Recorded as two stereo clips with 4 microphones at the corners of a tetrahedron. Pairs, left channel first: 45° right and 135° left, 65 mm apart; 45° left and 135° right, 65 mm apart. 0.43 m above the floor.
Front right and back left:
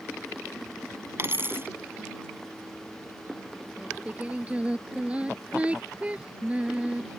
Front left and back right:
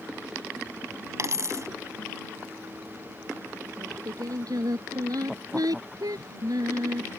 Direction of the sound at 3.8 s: 155° right.